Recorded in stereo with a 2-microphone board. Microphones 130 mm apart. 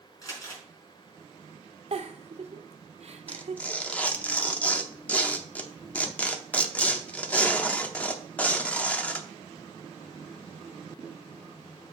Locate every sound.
0.2 s crumpling: 30° left (ahead or behind), 4.5 m
1.9 s a giggle: 55° right (ahead or behind), 0.6 m
3.3 s tearing paper: 10° left (ahead or behind), 0.7 m